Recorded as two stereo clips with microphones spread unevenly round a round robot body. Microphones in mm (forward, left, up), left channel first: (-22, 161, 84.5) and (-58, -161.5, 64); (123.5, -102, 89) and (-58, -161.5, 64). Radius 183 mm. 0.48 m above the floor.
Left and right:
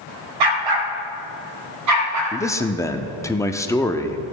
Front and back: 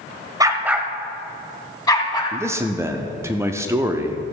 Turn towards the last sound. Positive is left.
turn(degrees=165)